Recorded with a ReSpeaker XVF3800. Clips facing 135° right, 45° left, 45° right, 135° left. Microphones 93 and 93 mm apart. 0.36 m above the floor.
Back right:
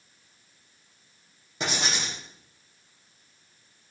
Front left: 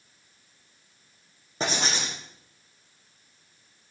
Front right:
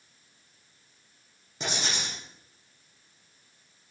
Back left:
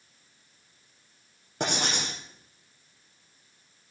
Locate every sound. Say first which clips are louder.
1.6 s writing: front left 2 dB, back left 4 dB; 100° left, 6 m